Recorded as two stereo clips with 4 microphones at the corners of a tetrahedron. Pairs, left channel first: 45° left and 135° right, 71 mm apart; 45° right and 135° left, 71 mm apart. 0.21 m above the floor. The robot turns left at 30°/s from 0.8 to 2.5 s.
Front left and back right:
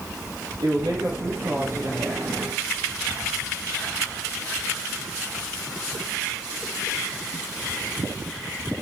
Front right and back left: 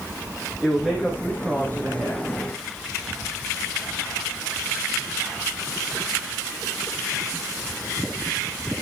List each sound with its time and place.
0.6 s a man speaking: 150° right, 6.5 m; by 2.3 s 165° left, 6.5 m